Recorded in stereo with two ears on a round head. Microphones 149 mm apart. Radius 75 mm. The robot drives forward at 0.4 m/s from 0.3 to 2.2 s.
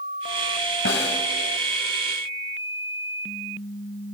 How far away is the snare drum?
About 3.5 m.